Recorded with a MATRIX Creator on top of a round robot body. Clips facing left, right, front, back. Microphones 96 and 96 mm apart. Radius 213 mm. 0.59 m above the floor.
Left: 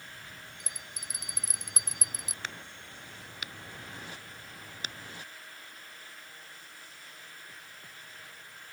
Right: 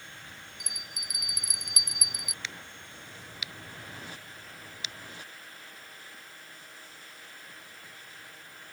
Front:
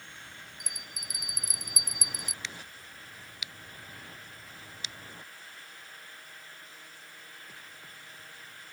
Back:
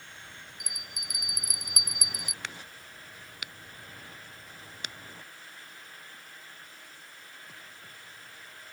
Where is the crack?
140° left.